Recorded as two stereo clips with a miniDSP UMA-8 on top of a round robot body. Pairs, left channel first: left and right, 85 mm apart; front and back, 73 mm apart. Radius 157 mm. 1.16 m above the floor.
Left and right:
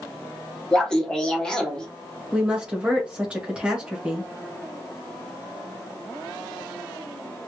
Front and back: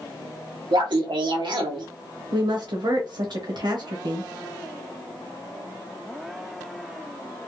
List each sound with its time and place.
0.7 s laughter: 170° left, 1.0 m
2.3 s a woman speaking: 170° right, 1.2 m